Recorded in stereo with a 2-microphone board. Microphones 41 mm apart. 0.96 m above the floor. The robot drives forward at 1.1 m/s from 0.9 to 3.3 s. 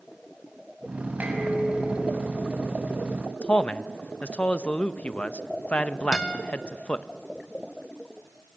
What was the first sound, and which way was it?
Dishes clattering, 50° right (ahead or behind).